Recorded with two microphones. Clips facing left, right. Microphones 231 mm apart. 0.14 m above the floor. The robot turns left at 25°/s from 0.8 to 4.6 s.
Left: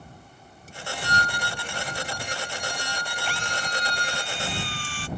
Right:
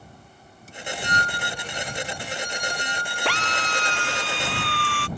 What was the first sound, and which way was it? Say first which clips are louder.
A violin: left 1 dB; 145° right.